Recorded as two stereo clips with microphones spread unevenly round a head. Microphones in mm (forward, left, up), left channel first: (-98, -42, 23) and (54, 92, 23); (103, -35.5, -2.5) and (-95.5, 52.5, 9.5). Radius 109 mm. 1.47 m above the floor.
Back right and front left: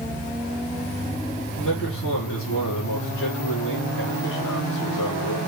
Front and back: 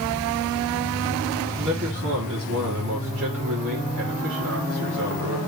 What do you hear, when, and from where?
1.6 s a man speaking: 165° right, 4 m